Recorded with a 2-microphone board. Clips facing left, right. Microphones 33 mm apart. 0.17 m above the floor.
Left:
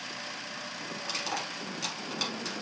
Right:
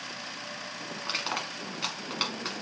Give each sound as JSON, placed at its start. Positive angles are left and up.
{"t": 1.0, "sound": "crushing", "side_deg": -40, "distance_m": 1.1}